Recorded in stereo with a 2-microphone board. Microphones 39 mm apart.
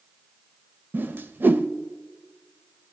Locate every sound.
0.9 s a whoosh: 65° right (ahead or behind), 0.5 m